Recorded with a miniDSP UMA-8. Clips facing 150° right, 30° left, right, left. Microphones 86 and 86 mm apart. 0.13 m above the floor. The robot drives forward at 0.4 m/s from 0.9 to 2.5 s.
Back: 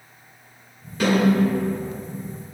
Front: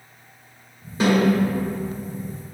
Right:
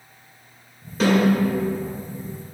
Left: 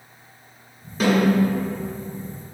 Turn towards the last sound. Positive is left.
turn(degrees=20)